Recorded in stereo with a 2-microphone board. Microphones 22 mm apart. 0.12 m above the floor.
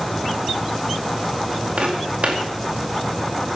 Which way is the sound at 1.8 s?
70° right (ahead or behind).